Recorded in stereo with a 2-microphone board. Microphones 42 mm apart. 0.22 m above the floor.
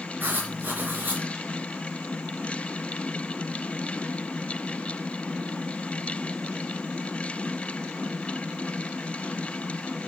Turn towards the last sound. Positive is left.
turn(degrees=-50)  # may be behind; listen again after turning